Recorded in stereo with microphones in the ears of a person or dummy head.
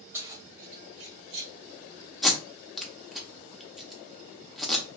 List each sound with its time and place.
0.1 s keys jangling: 15° right (ahead or behind), 1.3 m; by 1.5 s 70° right (ahead or behind), 1.5 m
2.2 s tape being pulled: 5° left (ahead or behind), 0.8 m